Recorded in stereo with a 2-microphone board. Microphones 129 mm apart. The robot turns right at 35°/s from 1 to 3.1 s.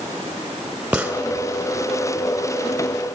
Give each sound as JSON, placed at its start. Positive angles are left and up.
{"t": 0.9, "sound": "a gunshot", "side_deg": -5, "distance_m": 2.0}